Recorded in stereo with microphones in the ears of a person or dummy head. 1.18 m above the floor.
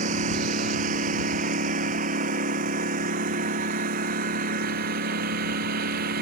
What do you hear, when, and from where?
0.0 s a lawn mower: 40° right (ahead or behind); by 6.2 s 50° right (ahead or behind)